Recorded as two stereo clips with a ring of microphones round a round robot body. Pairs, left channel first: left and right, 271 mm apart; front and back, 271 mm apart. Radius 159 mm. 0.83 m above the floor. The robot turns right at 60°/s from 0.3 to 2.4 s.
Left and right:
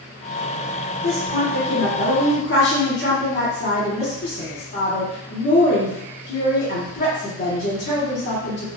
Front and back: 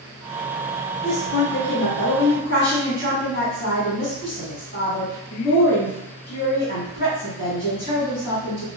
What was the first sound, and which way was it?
A woman speaking, 30° right.